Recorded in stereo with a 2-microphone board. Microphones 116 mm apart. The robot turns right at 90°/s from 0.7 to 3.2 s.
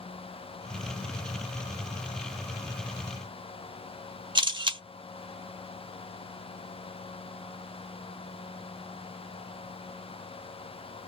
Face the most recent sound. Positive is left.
turn(degrees=-40)  # may be behind; listen again after turning